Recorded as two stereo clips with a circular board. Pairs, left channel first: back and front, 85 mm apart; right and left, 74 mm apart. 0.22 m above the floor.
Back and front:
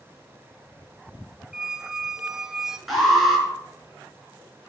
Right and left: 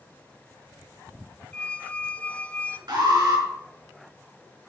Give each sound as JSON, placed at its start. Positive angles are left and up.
{"t": 1.5, "sound": "a squeak", "azimuth_deg": -70, "distance_m": 0.5}
{"t": 2.9, "sound": "an alarm", "azimuth_deg": 90, "distance_m": 4.0}